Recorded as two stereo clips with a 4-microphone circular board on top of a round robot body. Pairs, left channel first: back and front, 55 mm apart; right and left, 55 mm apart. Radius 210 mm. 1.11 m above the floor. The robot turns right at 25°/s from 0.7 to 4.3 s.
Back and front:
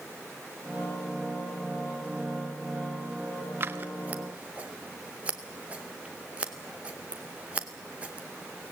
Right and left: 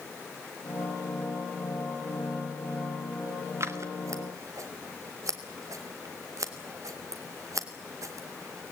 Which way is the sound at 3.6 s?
50° left.